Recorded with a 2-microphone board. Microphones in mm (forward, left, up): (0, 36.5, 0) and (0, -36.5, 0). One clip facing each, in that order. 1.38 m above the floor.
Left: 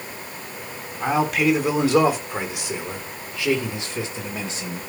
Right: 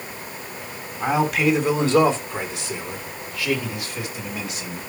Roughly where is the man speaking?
Centre.